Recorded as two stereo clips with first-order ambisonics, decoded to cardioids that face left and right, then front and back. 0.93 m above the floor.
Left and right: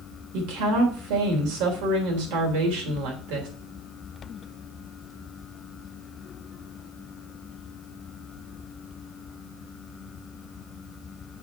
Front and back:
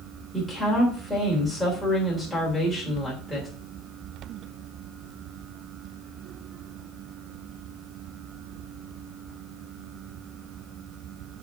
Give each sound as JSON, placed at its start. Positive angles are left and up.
{"t": 0.3, "sound": "a woman speaking", "azimuth_deg": -95, "distance_m": 3.5}